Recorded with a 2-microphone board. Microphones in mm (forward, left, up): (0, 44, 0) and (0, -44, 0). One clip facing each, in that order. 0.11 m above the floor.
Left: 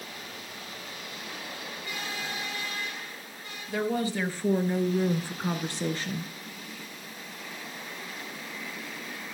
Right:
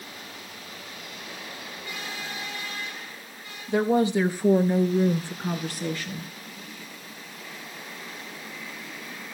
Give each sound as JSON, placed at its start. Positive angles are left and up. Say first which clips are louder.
{"t": 3.7, "sound": "a woman speaking", "louder": "right 7 dB", "side_deg": -25, "distance_m": 2.5}